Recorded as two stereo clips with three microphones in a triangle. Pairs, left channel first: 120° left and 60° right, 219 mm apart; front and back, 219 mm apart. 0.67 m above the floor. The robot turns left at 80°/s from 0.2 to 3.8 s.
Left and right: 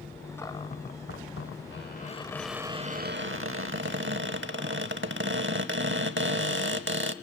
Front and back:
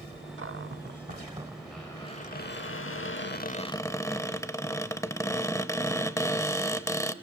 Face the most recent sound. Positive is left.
turn(degrees=-75)